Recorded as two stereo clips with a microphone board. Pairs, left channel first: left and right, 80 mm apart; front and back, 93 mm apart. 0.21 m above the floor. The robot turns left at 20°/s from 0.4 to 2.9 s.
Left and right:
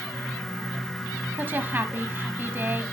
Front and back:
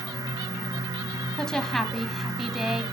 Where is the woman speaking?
75° right, 1.0 m; by 2.8 s 105° right, 1.0 m.